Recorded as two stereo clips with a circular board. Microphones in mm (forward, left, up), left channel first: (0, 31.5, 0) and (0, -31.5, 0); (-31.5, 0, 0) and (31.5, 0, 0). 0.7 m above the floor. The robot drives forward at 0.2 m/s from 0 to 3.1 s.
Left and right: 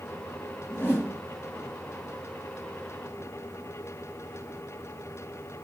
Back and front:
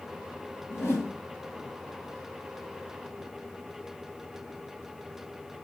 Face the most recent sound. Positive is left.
turn(degrees=150)